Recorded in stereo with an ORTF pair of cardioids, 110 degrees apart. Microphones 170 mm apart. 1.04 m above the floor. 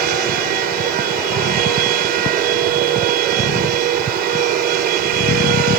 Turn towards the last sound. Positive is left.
turn(degrees=-65)